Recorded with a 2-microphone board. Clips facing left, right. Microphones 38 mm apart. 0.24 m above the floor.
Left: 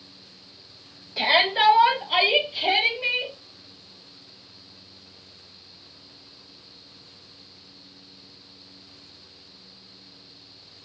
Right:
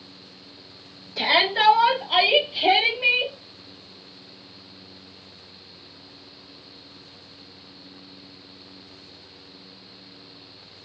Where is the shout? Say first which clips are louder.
Even; 10° left (ahead or behind), 1.9 m; by 3.3 s 30° right (ahead or behind), 1.7 m.